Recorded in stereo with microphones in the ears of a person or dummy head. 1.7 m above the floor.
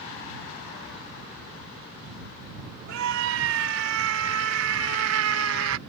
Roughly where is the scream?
Right.